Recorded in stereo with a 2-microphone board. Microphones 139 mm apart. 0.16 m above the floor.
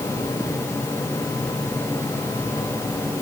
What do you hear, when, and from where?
Only background noise.